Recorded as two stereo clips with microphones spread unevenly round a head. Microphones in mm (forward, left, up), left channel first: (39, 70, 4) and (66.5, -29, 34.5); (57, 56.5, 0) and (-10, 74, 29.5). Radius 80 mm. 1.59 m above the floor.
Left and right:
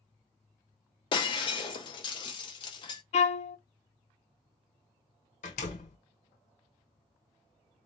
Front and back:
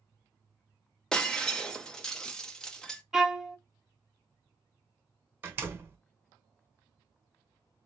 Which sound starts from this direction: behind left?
A door slam, at 5.4 s.